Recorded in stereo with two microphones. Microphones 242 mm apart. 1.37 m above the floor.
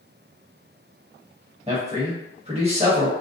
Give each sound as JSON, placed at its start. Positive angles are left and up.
{"t": 1.7, "sound": "a man speaking", "side_deg": -25, "distance_m": 1.0}